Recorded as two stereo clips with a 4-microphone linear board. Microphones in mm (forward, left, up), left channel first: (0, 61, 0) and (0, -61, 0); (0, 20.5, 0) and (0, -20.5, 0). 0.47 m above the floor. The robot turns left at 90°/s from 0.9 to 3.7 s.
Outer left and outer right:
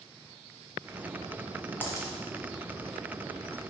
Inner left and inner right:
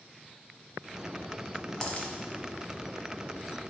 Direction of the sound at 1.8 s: 20° left (ahead or behind).